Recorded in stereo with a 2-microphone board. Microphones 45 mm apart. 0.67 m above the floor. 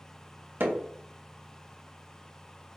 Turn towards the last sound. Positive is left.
turn(degrees=-55)  # may be behind; listen again after turning